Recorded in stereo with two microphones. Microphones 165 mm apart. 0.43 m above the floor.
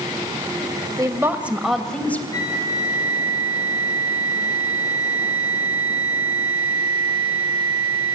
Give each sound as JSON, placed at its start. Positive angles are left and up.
{"t": 1.0, "sound": "a woman speaking", "side_deg": -25, "distance_m": 2.0}
{"t": 2.3, "sound": "a flute", "side_deg": 25, "distance_m": 4.5}